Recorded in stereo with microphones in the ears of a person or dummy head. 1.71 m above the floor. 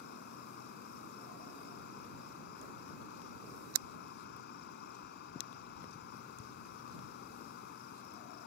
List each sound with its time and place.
0.0 s an insect: 65° left (ahead or behind)